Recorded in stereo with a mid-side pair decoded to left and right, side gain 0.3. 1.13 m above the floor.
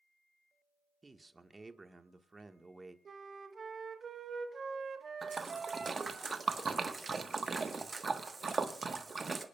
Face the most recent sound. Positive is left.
turn(degrees=-50)